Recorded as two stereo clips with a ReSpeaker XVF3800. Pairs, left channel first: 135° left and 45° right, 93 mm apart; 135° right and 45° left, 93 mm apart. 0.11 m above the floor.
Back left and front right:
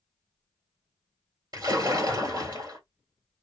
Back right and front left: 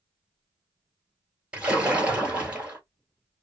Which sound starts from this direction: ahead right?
A splash, at 1.5 s.